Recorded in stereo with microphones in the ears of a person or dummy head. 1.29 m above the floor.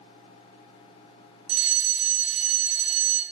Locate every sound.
1.5 s a fire alarm: 35° right (ahead or behind), 2 m